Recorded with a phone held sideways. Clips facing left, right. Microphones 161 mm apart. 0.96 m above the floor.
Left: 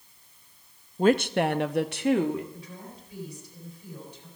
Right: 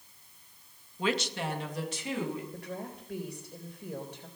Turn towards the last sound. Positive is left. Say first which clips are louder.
# right 4 dB
turn(degrees=-75)  # may be behind; listen again after turning